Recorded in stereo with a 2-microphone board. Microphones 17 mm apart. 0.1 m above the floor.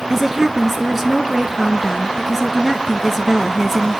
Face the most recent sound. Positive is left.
turn(degrees=-25)  # may be behind; listen again after turning